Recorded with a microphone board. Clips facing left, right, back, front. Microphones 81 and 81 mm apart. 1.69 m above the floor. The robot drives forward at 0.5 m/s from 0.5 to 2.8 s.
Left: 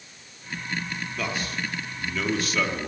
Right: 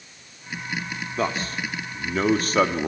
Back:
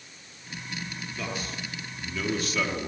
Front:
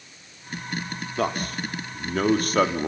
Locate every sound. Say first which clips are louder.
1.2 s a man speaking: right 5 dB, front 10 dB; 35° right, 4 m; by 2.9 s 45° right, 3 m